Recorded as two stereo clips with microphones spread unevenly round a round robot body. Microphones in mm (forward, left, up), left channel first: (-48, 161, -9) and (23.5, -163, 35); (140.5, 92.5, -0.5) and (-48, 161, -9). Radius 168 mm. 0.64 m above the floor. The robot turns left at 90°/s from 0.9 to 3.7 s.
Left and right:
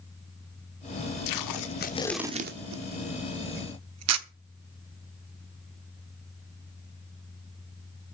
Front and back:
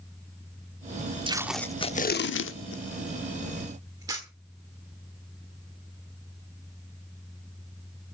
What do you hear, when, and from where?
1.3 s tape being pulled: 95° left, 1.2 m; by 4.3 s 125° right, 1.2 m